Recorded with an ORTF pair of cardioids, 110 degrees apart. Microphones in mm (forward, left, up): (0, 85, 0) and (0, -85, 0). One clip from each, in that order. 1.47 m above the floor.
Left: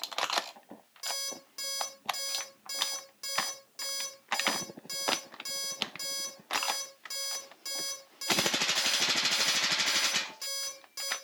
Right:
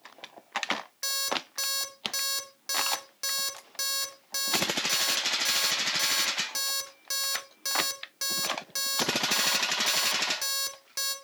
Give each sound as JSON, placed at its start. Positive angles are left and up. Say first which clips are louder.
{"t": 1.0, "sound": "an alarm clock", "louder": "right 6 dB", "azimuth_deg": -50, "distance_m": 2.5}